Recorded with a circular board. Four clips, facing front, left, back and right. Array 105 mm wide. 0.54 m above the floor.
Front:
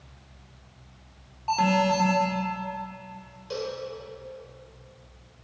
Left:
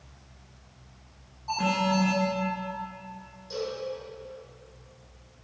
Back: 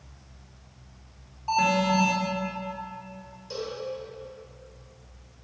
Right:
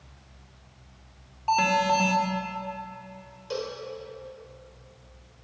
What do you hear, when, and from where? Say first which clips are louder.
1.5 s an alarm: right 4 dB, front 1 dB; 80° right, 2.5 m
3.5 s a cowbell: even, front 2 dB; 65° right, 2 m